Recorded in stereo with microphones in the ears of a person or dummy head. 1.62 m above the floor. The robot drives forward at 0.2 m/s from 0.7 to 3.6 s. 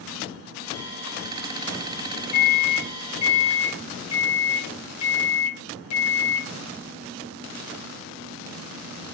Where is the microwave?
40° left (ahead or behind), 0.6 m; by 6.5 s 30° left (ahead or behind), 0.8 m.